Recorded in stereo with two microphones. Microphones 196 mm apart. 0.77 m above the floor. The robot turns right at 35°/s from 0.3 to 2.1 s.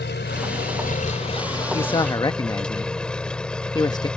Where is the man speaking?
30° left (ahead or behind); by 4.1 s 20° left (ahead or behind).